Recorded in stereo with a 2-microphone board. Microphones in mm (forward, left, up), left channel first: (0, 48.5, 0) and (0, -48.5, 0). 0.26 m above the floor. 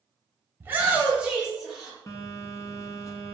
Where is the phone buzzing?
35° left (ahead or behind), 0.5 m.